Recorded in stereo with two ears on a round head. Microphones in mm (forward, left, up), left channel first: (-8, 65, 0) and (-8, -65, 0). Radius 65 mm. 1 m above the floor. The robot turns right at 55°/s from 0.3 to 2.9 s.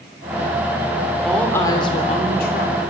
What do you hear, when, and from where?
1.2 s a woman speaking: straight ahead, 3 m; by 2.8 s 85° left, 3 m